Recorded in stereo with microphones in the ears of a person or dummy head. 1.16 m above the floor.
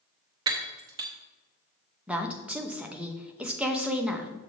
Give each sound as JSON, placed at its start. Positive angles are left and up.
{"t": 0.5, "sound": "breaking glass", "side_deg": -25, "distance_m": 0.5}
{"t": 2.1, "sound": "a woman speaking", "side_deg": -10, "distance_m": 0.8}